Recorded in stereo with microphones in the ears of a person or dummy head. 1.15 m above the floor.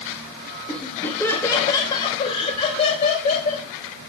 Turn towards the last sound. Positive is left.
turn(degrees=50)  # may be behind; listen again after turning